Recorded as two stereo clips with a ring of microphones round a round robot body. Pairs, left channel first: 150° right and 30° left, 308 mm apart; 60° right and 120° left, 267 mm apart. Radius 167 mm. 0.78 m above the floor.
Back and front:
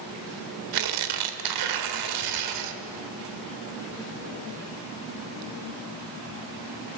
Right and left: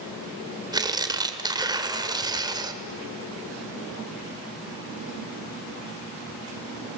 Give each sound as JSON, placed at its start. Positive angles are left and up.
{"t": 0.7, "sound": "tearing paper", "azimuth_deg": 45, "distance_m": 1.7}